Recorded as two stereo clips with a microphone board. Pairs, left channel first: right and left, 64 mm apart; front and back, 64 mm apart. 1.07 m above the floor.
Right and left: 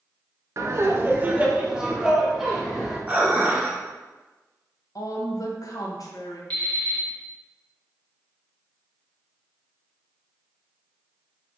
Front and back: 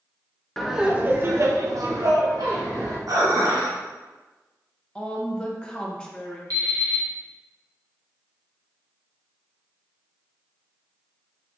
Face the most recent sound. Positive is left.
turn(degrees=-160)